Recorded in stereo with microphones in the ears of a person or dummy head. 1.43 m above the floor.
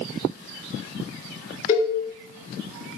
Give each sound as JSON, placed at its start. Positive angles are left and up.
{"t": 1.7, "sound": "a cowbell", "side_deg": 35, "distance_m": 1.6}